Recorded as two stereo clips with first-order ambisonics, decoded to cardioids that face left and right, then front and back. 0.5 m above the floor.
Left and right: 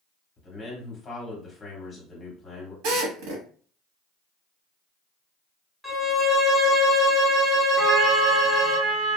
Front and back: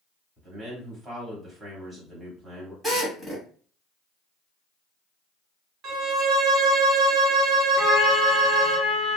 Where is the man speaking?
120° left, 1.2 m.